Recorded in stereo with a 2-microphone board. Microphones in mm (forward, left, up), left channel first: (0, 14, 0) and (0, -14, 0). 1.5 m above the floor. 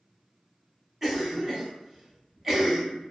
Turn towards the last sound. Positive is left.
turn(degrees=-15)  # may be behind; listen again after turning